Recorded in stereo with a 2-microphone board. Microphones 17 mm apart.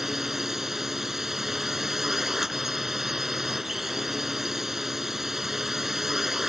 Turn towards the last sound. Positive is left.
turn(degrees=-20)  # may be behind; listen again after turning